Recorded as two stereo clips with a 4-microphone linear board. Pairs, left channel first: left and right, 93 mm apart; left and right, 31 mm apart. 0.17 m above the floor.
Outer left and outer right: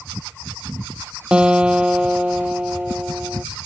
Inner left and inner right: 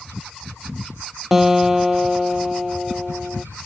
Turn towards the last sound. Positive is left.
turn(degrees=-10)  # may be behind; listen again after turning